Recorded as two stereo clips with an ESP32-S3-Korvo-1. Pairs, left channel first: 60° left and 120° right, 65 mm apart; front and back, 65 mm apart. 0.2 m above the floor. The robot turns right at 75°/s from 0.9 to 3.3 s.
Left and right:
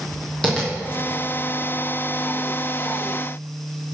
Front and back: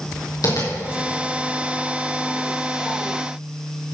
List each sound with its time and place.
0.4 s tapping: 20° right, 5 m